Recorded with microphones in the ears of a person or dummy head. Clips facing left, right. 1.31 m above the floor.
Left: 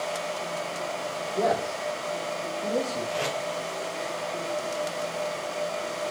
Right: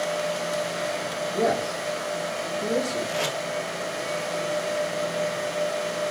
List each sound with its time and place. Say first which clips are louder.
1.3 s a man speaking: right 1 dB; 45° right (ahead or behind), 1.9 m; by 3.0 s 75° right (ahead or behind), 3 m
3.1 s tape being pulled: right 1 dB; 70° right (ahead or behind), 2.5 m